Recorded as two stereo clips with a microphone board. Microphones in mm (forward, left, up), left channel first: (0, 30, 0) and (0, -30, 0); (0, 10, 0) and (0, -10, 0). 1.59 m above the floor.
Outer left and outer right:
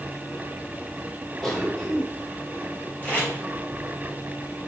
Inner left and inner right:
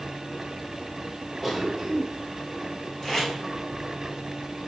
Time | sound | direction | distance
1.4 | a cough | 5° left (ahead or behind) | 2 m
3.0 | tape being pulled | 30° left (ahead or behind) | 3.5 m